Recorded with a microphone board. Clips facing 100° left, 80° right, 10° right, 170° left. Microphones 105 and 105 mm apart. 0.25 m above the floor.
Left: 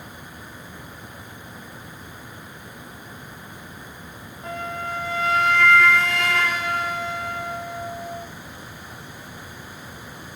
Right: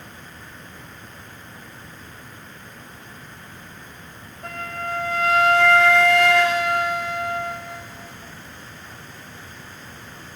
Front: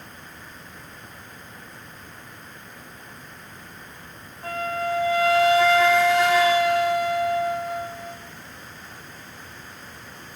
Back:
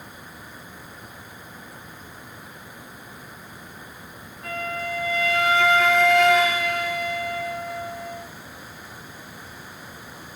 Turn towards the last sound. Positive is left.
turn(degrees=-70)